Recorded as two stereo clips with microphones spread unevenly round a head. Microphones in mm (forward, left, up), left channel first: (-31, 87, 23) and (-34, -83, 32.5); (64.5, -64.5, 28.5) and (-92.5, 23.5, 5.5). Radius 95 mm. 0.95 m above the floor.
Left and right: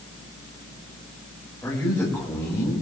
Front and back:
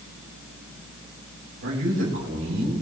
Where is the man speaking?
170° left, 4.5 m.